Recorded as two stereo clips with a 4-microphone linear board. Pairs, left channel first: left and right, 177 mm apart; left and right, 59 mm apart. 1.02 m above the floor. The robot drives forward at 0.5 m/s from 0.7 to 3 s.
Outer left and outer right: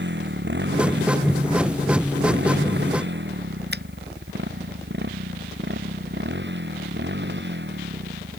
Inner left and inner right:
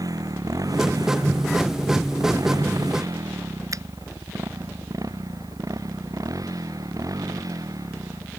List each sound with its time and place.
0.0 s a motorcycle: 85° right
3.7 s a finger snap: 70° right (ahead or behind)